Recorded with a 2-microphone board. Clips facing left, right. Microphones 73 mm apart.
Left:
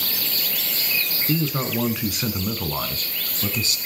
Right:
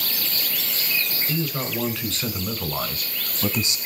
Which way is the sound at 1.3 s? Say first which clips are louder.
Left 5 dB; 25° left (ahead or behind).